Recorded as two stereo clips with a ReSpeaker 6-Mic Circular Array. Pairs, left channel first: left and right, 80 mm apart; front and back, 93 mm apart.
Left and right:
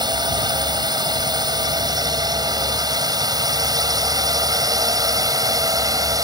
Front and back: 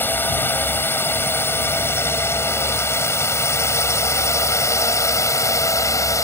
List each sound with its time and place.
0.0 s a drone: 65° right; by 6.2 s 55° right